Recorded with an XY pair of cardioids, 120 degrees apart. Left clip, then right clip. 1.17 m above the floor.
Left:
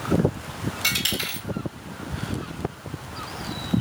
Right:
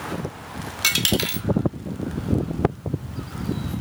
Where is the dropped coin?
45° right, 1.3 m.